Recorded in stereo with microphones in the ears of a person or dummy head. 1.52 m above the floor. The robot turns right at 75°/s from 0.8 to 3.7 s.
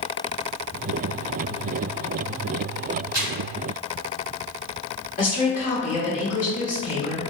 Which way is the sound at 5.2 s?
40° left (ahead or behind).